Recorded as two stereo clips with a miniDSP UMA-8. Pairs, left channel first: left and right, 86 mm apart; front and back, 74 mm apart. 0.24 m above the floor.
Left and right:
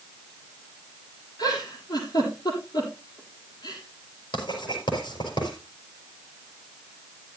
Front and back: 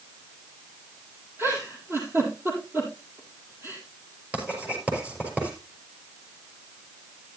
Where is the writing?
110° left, 5 m.